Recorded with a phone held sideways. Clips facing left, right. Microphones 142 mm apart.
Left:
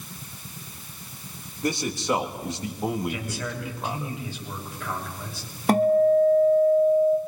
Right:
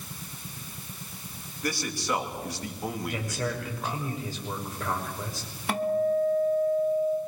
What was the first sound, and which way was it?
A man speaking, 20° left (ahead or behind).